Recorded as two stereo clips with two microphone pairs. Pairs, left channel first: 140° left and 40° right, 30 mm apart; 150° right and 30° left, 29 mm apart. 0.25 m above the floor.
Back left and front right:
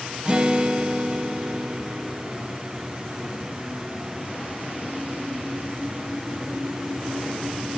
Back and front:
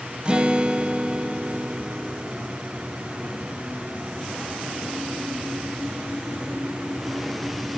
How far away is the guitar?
About 1.0 m.